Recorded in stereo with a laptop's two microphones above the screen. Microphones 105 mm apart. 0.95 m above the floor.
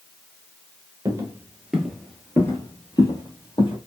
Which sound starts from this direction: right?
Footsteps, at 1.1 s.